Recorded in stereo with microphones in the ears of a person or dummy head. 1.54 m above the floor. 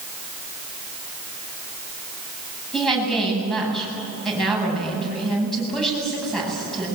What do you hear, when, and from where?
2.7 s a woman speaking: centre (ahead or behind), 10 m